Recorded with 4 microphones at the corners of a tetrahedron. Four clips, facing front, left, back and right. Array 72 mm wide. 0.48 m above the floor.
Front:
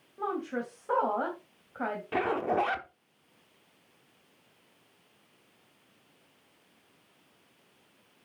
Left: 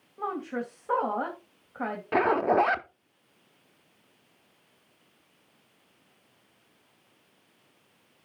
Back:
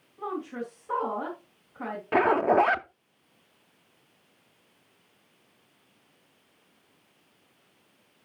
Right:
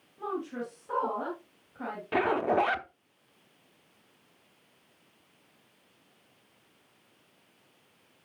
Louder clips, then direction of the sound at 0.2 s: Left 2 dB, front 1 dB; 50° left.